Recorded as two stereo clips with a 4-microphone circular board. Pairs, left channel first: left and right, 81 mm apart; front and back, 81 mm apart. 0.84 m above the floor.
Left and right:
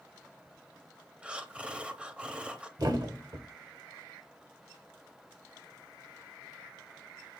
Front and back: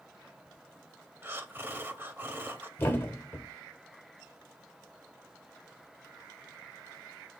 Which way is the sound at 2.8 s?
60° right.